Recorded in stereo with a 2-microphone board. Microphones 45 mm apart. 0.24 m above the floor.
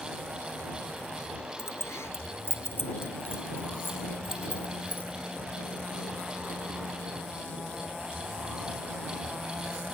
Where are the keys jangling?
75° left (ahead or behind); by 5.2 s 45° left (ahead or behind).